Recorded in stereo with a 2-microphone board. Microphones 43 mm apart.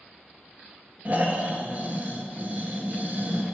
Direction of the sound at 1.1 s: 40° right (ahead or behind).